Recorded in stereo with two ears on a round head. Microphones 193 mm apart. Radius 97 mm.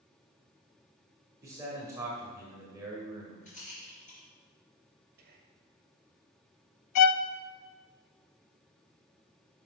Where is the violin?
85° left, 0.6 m.